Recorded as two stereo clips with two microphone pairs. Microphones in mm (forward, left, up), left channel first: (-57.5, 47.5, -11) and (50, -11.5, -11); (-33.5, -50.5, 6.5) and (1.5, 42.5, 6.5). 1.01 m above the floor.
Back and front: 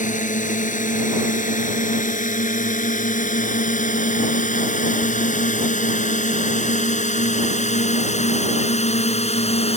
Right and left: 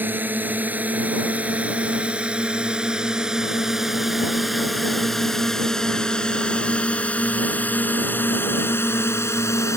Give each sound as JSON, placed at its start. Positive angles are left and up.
{"t": 0.0, "sound": "a drone", "azimuth_deg": 140}